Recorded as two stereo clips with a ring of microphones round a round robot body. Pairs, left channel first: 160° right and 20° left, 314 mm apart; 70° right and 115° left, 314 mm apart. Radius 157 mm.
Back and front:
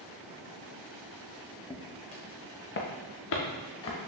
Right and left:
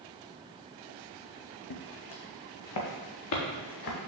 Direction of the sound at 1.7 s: 80° right.